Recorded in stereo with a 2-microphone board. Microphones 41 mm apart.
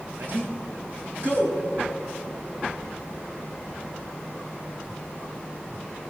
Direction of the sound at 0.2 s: 60° right (ahead or behind).